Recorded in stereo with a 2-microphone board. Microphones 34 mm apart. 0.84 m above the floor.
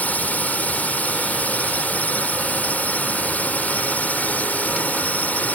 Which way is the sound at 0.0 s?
55° left (ahead or behind).